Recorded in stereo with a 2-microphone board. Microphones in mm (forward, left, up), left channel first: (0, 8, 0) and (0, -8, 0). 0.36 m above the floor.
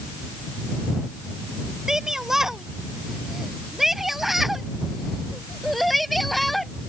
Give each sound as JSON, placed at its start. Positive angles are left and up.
{"t": 1.9, "sound": "a shout", "side_deg": -30}